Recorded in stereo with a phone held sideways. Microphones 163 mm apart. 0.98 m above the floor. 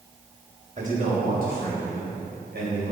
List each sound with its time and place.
0.8 s a man speaking: 50° right (ahead or behind), 3.5 m; by 2.9 s 80° right, 4.5 m